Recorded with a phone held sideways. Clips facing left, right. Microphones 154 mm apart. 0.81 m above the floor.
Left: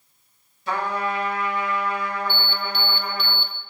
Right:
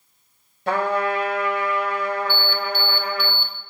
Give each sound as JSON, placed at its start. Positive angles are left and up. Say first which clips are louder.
{"t": 0.7, "sound": "a trumpet", "louder": "right 4 dB", "side_deg": -55, "distance_m": 1.2}
{"t": 2.3, "sound": "an alarm", "louder": "right 4 dB", "side_deg": -45, "distance_m": 0.6}